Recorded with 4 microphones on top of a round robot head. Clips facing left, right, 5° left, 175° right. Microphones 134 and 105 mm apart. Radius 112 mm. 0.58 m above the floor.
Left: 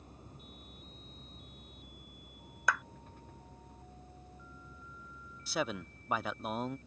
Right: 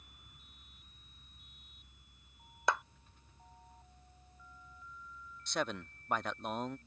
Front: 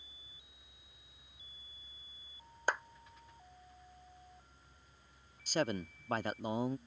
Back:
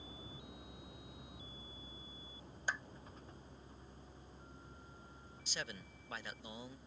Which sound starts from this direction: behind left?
A vehicle, at 0.0 s.